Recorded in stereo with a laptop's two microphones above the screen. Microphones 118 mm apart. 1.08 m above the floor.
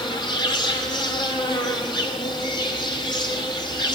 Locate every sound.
0.0 s an insect: 40° left (ahead or behind), 1.4 m